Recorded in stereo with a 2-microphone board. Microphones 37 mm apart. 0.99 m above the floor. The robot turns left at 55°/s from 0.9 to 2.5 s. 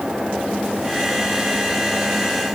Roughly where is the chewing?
I don't hear chewing.